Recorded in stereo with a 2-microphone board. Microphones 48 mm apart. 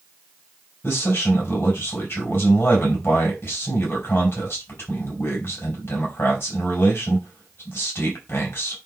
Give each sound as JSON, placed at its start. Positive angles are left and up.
{"t": 0.8, "sound": "a man speaking", "side_deg": 55, "distance_m": 3.5}